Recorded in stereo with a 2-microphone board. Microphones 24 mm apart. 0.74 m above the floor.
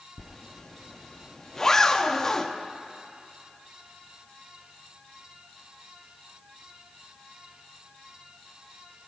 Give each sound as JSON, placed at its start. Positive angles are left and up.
{"t": 0.2, "sound": "a zipper", "side_deg": 25, "distance_m": 0.6}